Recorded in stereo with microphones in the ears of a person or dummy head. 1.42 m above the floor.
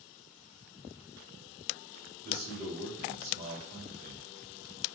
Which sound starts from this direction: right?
A man speaking, at 2.2 s.